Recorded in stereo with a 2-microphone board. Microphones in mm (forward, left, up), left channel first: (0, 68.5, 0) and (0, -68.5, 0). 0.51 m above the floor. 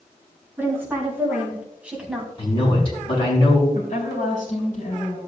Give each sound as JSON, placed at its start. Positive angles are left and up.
{"t": 0.6, "sound": "a woman speaking", "side_deg": -15, "distance_m": 5.0}
{"t": 2.4, "sound": "a man speaking", "side_deg": 40, "distance_m": 5.5}
{"t": 3.7, "sound": "a woman speaking", "side_deg": 60, "distance_m": 4.0}